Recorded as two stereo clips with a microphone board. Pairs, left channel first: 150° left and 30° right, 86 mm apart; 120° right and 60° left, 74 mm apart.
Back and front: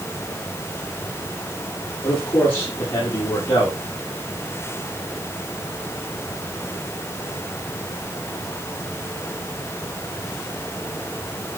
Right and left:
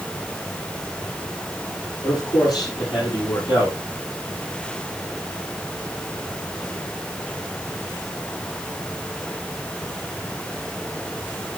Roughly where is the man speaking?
Behind right.